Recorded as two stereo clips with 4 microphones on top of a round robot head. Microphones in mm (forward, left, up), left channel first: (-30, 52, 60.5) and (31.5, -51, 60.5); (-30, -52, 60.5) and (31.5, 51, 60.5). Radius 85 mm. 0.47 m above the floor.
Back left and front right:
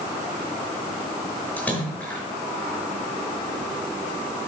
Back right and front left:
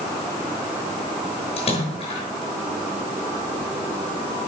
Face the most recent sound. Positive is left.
turn(degrees=-160)